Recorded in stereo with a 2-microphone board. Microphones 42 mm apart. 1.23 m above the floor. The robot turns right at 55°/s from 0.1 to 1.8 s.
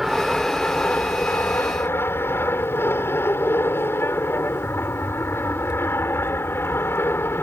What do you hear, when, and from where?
0.0 s an aircraft: 5° right; by 7.4 s 85° left